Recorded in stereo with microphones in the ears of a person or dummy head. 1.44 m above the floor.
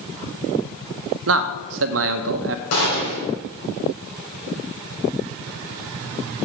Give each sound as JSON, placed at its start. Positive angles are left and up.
{"t": 1.3, "sound": "a man speaking", "side_deg": -75, "distance_m": 0.9}
{"t": 2.7, "sound": "a gunshot", "side_deg": 80, "distance_m": 5.0}